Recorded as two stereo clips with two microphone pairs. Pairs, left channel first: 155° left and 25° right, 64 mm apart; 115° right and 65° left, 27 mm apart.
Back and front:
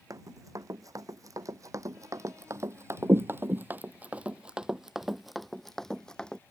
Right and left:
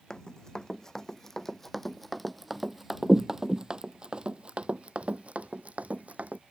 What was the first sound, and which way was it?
Running footsteps, 50° right.